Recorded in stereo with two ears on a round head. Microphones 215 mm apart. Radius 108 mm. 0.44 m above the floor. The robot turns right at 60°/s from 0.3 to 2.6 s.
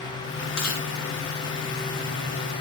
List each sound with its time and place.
0.6 s chewing: 80° left, 5 m; by 0.9 s 75° left (ahead or behind), 5 m